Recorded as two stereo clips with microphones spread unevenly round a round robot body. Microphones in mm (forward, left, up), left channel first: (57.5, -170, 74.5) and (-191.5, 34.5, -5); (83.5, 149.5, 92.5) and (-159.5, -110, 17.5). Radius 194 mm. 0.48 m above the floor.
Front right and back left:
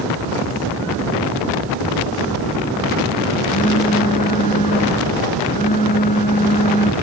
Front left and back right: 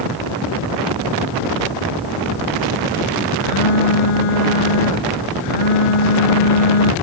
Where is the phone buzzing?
35° left.